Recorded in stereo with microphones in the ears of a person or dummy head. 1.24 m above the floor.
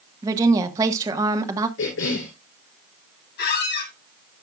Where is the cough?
70° left (ahead or behind), 3.5 m.